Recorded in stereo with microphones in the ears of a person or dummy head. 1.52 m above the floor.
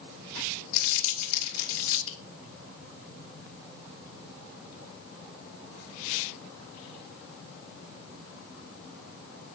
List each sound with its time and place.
0.7 s crumpling: 75° left (ahead or behind), 2.5 m